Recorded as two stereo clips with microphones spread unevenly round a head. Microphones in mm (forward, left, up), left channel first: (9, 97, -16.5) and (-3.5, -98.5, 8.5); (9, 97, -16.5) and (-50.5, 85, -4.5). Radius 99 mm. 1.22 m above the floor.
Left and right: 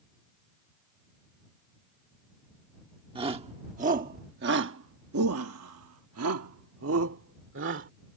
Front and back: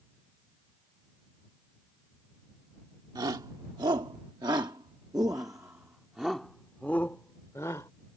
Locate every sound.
3.1 s a shout: 160° right; by 7.9 s 60° right